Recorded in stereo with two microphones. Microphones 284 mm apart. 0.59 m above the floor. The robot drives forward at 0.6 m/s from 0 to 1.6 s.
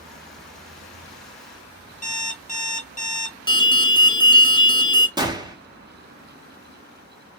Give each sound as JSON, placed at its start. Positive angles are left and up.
{"t": 2.0, "sound": "an alarm clock", "side_deg": 25, "distance_m": 0.7}
{"t": 3.5, "sound": "an alarm", "side_deg": 15, "distance_m": 0.5}
{"t": 5.2, "sound": "a gunshot", "side_deg": -15, "distance_m": 0.7}